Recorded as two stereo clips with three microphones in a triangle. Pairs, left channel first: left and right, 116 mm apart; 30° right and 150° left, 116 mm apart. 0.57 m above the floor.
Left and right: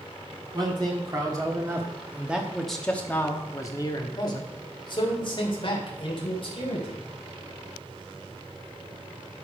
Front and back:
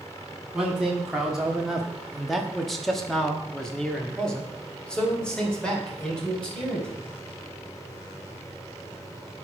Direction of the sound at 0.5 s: 125° right.